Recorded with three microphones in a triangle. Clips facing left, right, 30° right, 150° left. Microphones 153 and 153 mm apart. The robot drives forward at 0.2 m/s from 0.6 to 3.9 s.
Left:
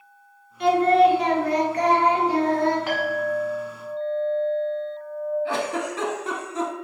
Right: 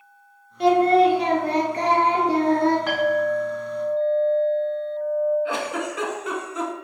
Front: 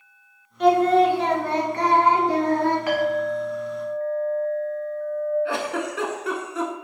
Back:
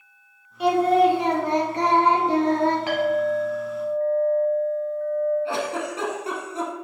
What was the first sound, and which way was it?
Singing, 130° right.